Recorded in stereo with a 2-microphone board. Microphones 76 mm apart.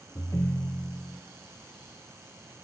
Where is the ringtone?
40° left (ahead or behind), 0.9 m.